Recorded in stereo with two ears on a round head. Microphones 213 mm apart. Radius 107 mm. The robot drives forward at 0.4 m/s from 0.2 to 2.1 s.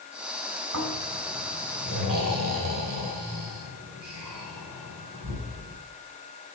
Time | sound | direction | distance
0.7 | snoring | 50° right (ahead or behind) | 5 m